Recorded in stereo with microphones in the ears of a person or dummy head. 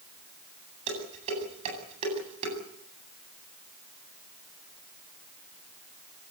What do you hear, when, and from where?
0.9 s dishes clattering: 30° right (ahead or behind), 8.5 m